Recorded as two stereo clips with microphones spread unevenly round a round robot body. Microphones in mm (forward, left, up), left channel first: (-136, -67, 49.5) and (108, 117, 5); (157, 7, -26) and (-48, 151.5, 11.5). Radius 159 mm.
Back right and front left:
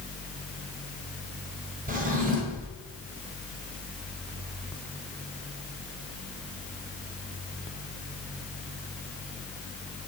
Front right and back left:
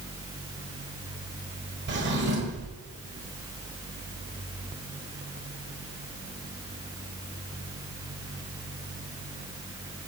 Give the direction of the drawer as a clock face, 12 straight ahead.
9 o'clock.